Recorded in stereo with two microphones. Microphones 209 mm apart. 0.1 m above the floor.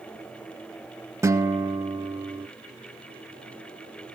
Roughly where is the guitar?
Centre.